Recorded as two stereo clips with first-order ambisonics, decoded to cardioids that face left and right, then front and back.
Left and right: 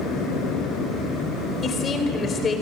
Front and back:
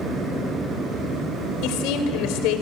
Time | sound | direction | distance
1.6 | a woman speaking | 20° left | 3.5 m